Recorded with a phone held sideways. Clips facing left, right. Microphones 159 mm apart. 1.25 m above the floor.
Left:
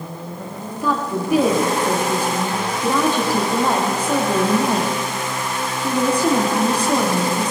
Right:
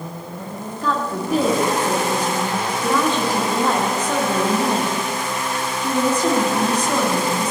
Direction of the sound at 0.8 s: 15° left (ahead or behind).